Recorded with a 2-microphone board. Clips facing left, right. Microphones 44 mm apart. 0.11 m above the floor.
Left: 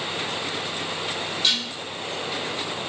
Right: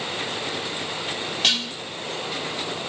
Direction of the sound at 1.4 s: 55° right (ahead or behind).